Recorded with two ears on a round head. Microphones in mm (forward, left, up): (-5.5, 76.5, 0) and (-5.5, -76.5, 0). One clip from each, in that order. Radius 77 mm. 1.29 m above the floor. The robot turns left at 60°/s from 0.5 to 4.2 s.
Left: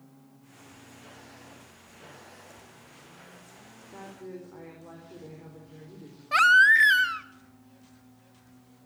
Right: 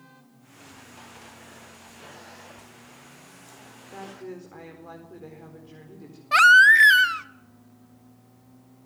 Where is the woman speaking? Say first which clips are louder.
Right 4 dB; 85° right, 4.5 m; by 6.2 s 65° right (ahead or behind), 4.5 m.